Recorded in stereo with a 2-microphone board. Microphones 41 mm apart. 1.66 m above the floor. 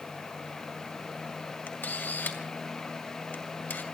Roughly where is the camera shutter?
Left.